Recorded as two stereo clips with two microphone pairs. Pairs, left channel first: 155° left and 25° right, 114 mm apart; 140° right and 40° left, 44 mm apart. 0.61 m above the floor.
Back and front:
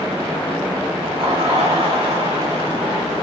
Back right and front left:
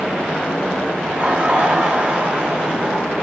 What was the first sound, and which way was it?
Laughter, 5° left.